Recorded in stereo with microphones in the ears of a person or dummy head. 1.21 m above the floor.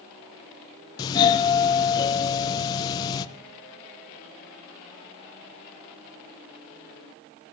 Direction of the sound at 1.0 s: 20° left (ahead or behind).